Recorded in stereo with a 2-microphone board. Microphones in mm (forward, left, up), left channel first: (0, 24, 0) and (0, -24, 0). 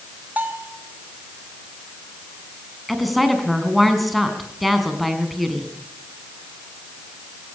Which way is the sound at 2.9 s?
Centre (ahead or behind).